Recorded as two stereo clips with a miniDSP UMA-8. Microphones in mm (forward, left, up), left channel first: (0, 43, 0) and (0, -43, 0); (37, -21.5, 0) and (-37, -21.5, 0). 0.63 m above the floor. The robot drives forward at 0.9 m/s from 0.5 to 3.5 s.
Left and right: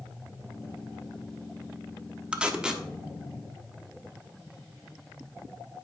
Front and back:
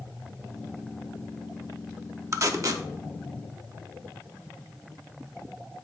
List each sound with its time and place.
2.3 s tape being pulled: 160° right, 1.0 m; by 2.8 s 170° right, 1.4 m